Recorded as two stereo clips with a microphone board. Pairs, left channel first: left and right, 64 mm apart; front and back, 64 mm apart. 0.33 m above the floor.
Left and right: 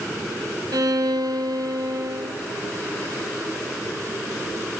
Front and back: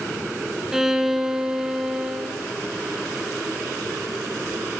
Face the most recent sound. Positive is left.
turn(degrees=-100)